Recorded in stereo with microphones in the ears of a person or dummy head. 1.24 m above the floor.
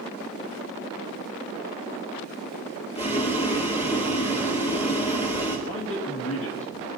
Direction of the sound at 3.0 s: 25° left (ahead or behind).